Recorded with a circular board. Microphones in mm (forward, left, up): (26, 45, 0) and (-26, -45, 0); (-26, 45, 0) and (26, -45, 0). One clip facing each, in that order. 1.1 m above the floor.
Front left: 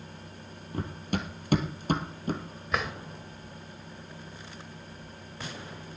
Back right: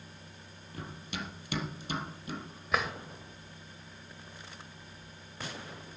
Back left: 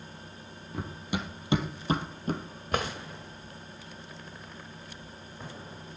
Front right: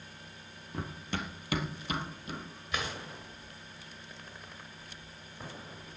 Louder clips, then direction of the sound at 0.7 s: Front left 8 dB, back left 3 dB; 30° left.